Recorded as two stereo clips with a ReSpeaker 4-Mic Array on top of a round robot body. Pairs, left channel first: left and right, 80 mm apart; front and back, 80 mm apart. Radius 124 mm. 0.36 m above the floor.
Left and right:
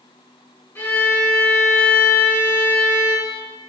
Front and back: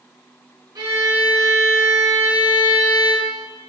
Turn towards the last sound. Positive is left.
turn(degrees=150)